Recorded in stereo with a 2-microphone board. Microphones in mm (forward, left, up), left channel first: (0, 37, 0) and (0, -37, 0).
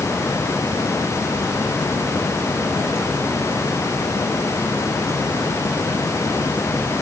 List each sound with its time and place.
Only background noise.